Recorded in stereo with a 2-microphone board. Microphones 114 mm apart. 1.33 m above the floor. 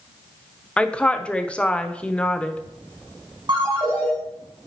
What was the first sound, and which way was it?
A woman speaking, 10° left (ahead or behind).